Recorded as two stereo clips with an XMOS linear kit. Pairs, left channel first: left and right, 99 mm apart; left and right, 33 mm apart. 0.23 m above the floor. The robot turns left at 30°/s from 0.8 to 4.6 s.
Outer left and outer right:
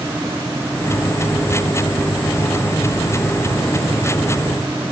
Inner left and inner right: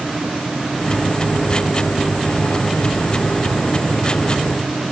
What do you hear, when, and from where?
Only background noise.